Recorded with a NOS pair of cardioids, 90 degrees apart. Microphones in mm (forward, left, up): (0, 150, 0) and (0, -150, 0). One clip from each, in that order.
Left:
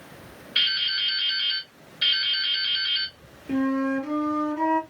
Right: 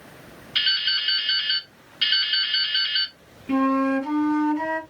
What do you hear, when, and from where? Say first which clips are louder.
0.6 s dripping: right 1 dB; 65° right, 1.8 m
3.5 s a flute: right 4 dB; 65° right, 1.9 m